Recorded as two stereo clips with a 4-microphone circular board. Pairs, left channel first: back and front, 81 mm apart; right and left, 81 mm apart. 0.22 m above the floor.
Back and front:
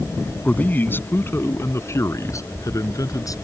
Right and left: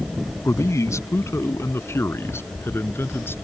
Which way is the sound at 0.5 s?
115° right.